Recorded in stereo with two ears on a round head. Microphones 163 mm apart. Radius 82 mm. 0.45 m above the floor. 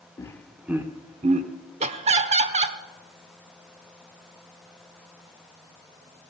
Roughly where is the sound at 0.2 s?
Centre.